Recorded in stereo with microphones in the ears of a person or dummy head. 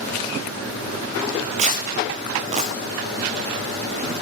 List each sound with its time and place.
1.6 s tearing paper: 40° right (ahead or behind), 0.8 m